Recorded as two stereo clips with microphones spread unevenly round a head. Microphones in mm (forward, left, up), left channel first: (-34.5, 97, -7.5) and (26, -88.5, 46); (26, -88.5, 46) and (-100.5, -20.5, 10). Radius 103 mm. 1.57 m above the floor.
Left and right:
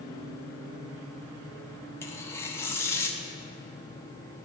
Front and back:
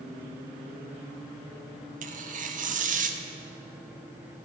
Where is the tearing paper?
170° right, 0.7 m.